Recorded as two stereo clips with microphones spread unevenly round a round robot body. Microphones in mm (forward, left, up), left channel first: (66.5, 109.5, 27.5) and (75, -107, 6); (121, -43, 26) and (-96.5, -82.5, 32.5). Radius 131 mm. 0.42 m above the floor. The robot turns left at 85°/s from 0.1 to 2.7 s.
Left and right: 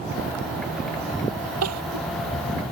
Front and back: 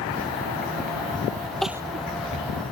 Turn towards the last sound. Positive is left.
turn(degrees=-170)